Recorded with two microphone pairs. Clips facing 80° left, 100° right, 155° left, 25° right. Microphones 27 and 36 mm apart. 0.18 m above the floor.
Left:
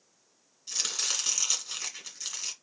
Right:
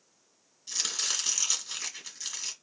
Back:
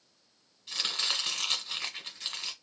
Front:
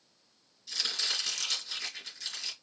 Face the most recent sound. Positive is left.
turn(degrees=155)